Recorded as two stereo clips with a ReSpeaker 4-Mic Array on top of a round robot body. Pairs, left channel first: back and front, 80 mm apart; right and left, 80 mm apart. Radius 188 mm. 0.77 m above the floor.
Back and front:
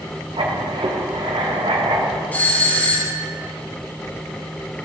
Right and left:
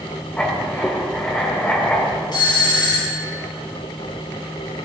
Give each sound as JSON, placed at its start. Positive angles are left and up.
{"t": 0.4, "sound": "writing", "azimuth_deg": -15, "distance_m": 1.9}
{"t": 2.3, "sound": "a doorbell", "azimuth_deg": -115, "distance_m": 3.5}